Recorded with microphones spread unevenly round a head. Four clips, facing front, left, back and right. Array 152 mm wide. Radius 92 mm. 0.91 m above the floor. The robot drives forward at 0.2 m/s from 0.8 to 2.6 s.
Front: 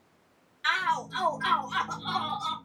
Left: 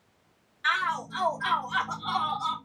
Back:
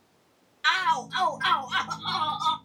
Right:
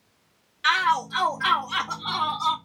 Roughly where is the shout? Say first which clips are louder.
Right 6 dB, back 3 dB; right.